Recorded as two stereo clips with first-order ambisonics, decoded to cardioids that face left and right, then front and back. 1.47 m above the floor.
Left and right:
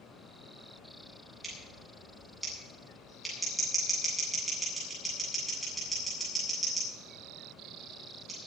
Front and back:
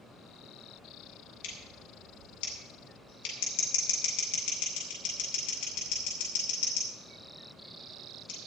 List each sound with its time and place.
1.4 s scissors: 5° right, 8.5 m